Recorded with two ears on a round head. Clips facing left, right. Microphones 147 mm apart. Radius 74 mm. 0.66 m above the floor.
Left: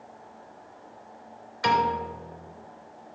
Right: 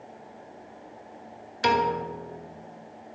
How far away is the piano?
About 1.3 m.